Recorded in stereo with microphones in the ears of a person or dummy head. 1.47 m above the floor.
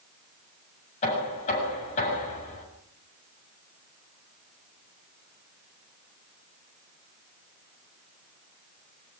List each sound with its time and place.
1.0 s knocking: 35° left (ahead or behind), 8 m